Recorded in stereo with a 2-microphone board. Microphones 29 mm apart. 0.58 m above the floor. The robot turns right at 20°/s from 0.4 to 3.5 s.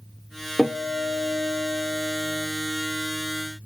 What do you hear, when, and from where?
0.6 s a guitar: straight ahead, 1.6 m; by 2.5 s 35° left, 1.6 m